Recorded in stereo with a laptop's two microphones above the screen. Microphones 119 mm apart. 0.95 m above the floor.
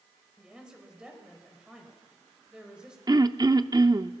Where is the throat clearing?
35° right (ahead or behind), 0.6 m.